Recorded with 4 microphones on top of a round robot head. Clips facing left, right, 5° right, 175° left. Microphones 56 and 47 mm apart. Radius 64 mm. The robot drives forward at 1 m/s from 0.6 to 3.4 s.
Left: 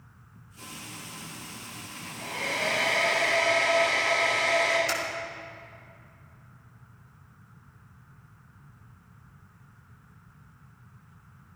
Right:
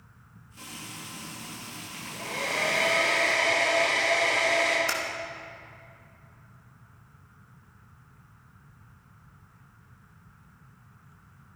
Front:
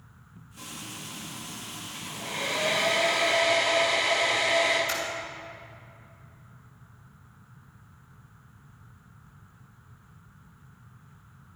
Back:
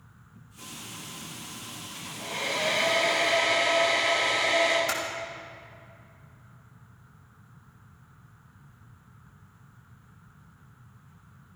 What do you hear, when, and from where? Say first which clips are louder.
0.6 s frying: right 1 dB, front 2 dB; 45° right, 4 m; by 2.9 s 80° right, 2.5 m
1.9 s a hair dryer: right 1 dB, even; 80° right, 4.5 m; by 4.8 s 100° right, 4.5 m
4.9 s typing on a keyboard: even, back 1 dB; 145° right, 2.5 m